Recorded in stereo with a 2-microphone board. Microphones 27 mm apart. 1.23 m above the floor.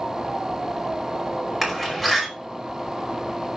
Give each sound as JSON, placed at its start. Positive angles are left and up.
{"t": 1.6, "sound": "a door slam", "side_deg": -10, "distance_m": 5.0}